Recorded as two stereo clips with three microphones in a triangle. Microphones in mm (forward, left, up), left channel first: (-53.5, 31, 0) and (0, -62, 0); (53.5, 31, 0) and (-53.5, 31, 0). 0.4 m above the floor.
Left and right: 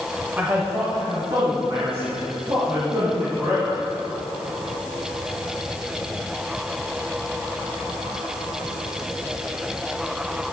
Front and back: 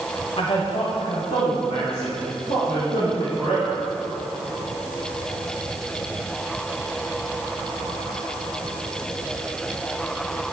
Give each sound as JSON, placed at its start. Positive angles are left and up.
{"t": 0.4, "sound": "a man speaking", "azimuth_deg": 5, "distance_m": 1.1}